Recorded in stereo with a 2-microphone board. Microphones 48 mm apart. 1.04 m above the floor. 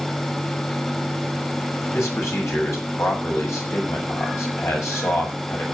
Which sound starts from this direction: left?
A man speaking, at 1.9 s.